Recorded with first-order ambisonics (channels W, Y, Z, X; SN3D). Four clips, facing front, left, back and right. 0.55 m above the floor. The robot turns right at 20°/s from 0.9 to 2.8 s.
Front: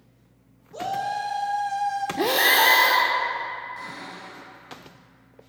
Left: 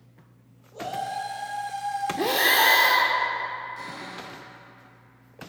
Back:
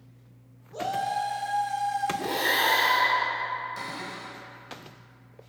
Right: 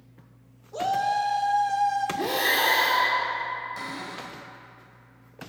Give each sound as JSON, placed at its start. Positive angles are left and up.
{"t": 0.7, "sound": "a shout", "azimuth_deg": -80, "distance_m": 1.2}
{"t": 2.2, "sound": "breathing", "azimuth_deg": 20, "distance_m": 0.6}
{"t": 3.8, "sound": "a cupboard door", "azimuth_deg": -135, "distance_m": 2.0}